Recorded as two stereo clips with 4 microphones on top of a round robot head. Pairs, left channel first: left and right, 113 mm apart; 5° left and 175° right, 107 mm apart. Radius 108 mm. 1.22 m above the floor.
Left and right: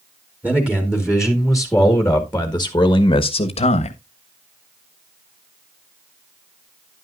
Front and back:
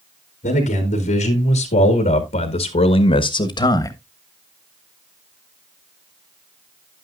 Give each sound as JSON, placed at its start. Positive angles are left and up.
{"t": 0.4, "sound": "a man speaking", "azimuth_deg": -10, "distance_m": 3.0}